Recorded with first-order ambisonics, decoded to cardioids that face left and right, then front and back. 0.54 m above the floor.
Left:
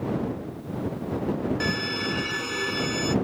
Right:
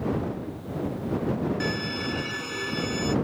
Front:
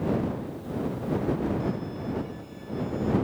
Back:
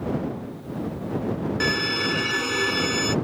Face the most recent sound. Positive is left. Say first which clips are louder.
# left 2 dB, back 11 dB
turn(degrees=170)